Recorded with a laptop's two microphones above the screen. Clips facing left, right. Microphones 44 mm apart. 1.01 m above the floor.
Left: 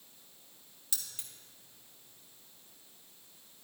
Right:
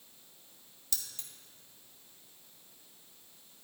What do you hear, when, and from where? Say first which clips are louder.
0.9 s keys jangling: right 1 dB; 15° left (ahead or behind), 1.1 m